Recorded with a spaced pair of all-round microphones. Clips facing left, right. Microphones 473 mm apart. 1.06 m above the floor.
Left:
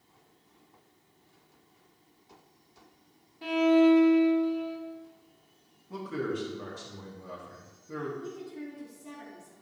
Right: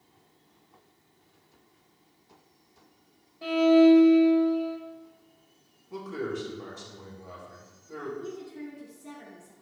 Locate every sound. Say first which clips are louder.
3.4 s a violin: right 3 dB; 10° left (ahead or behind), 1.1 m
5.9 s a man speaking: even; 65° left (ahead or behind), 1.9 m
8.2 s a woman speaking: right 1 dB; centre (ahead or behind), 1.7 m